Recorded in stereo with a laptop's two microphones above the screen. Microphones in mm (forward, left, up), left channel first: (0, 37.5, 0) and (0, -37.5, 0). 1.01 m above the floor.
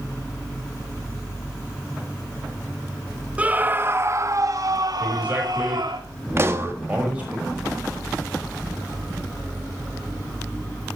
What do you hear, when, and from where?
3.4 s a scream: 20° right (ahead or behind), 1.3 m; by 6.0 s 75° right (ahead or behind), 2.5 m
5.0 s a man speaking: 15° right (ahead or behind), 5 m
6.4 s a pop: 35° right (ahead or behind), 1.2 m